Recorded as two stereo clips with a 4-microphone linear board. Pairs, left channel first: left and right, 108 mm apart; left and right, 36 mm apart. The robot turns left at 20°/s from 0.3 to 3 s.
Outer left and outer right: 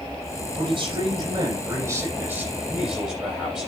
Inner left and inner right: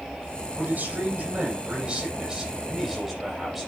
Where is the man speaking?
125° right, 8.5 m; by 3.7 s 170° right, 8.5 m.